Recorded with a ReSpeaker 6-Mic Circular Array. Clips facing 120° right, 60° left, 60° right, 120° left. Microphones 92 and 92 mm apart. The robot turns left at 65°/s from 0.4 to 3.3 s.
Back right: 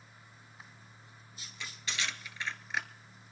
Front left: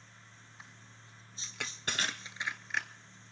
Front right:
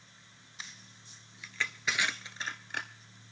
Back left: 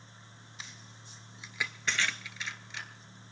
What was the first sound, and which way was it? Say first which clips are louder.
Crushing: front left 3 dB, even; 55° left.